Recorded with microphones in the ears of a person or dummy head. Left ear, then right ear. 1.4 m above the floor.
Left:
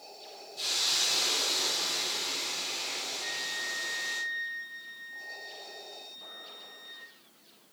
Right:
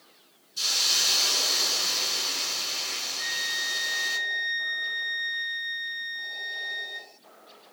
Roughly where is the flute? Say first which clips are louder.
Right 6 dB; right.